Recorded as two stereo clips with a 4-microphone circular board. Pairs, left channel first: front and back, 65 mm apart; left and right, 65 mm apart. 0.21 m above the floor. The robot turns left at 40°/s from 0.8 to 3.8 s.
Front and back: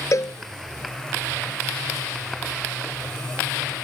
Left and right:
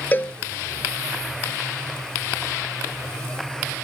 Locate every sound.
0.1 s a cowbell: 30° left